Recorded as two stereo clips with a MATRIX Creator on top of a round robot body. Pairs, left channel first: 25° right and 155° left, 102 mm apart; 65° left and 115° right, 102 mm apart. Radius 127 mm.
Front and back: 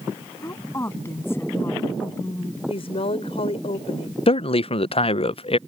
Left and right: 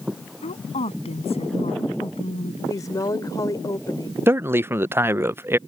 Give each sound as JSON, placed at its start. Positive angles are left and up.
{"t": 0.4, "sound": "a woman speaking", "azimuth_deg": 45}
{"t": 2.7, "sound": "a woman speaking", "azimuth_deg": 10}
{"t": 4.3, "sound": "a man speaking", "azimuth_deg": -45}